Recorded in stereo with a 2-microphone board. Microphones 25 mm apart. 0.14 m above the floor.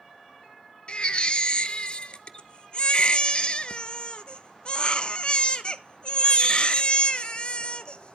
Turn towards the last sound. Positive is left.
turn(degrees=45)  # may be behind; listen again after turning